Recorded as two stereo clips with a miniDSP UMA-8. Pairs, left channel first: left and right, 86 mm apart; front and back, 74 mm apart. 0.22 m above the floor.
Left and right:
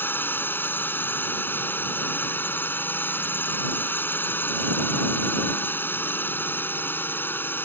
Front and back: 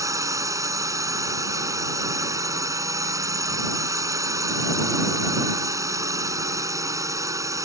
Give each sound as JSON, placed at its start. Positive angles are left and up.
{"t": 0.0, "sound": "a drone", "azimuth_deg": 150}